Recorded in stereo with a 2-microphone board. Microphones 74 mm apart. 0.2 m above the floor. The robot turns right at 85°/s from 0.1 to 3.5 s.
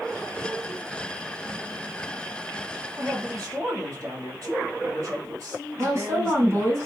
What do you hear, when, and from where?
3.0 s a man speaking: 130° right, 1.7 m; by 6.8 s 85° right, 1.7 m
5.8 s a woman speaking: 40° right (ahead or behind), 1.9 m